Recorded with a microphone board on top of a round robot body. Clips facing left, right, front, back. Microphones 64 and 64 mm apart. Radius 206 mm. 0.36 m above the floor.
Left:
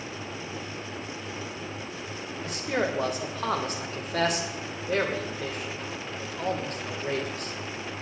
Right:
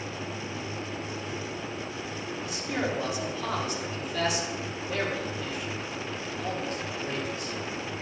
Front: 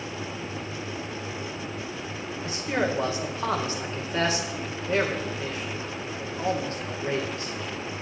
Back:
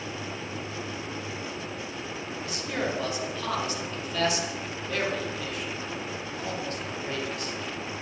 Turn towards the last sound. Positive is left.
turn(degrees=55)